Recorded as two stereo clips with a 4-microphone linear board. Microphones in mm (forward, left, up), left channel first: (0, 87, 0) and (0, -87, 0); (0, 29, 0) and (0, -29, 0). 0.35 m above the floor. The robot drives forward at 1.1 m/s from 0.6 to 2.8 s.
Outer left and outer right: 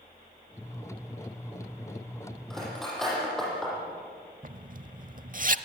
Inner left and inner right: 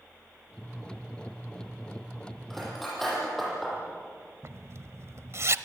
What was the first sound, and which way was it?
Cutlery clinking, 5° left (ahead or behind).